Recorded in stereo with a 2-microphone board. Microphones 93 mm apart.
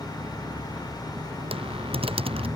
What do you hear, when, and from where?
0.0 s an engine running: 50° right (ahead or behind)
1.5 s typing on a keyboard: 90° right